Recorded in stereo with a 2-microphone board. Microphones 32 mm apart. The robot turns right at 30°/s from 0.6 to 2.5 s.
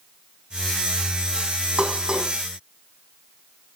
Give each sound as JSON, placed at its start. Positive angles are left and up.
{"t": 1.8, "sound": "dishes clattering", "side_deg": -35, "distance_m": 2.5}